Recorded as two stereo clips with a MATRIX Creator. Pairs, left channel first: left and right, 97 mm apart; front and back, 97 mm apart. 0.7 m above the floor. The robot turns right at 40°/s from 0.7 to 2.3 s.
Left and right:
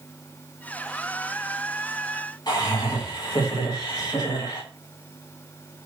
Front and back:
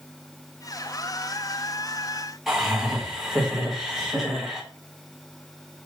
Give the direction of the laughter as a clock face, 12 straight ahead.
9 o'clock.